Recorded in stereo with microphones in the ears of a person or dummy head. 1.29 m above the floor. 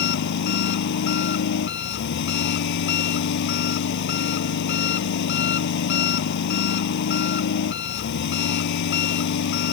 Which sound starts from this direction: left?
An engine running, at 0.0 s.